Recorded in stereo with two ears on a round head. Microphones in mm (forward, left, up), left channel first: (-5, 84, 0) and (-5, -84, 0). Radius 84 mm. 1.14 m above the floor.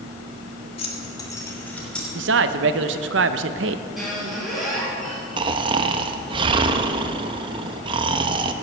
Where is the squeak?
Centre (ahead or behind), 4.5 m.